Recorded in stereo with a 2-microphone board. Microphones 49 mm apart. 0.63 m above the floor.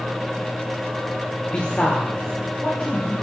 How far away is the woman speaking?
About 1.2 m.